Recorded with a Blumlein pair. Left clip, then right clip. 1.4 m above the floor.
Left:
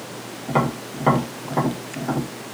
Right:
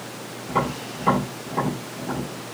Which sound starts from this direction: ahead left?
Tapping, at 0.5 s.